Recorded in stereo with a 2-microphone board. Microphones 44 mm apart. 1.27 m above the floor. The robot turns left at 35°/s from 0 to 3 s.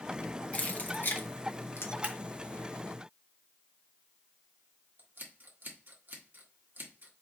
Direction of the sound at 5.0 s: 50° right (ahead or behind).